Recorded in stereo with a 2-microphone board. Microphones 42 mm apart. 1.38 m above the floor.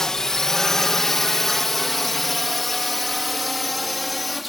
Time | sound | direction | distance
0.0 | a drone | 10° left (ahead or behind) | ?